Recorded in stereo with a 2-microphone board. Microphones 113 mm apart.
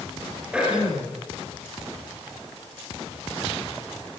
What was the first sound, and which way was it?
Throat clearing, 10° right (ahead or behind).